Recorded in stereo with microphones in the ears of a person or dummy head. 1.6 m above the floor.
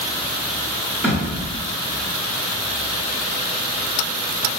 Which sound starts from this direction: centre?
A thud, at 1.0 s.